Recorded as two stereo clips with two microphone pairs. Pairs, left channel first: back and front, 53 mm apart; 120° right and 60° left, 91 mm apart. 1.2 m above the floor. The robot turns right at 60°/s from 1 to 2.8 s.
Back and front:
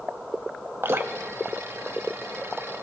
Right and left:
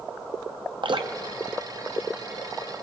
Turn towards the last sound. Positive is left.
turn(degrees=145)